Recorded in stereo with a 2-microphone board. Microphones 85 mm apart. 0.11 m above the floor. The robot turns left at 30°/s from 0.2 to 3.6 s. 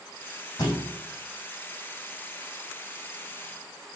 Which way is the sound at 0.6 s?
45° left (ahead or behind).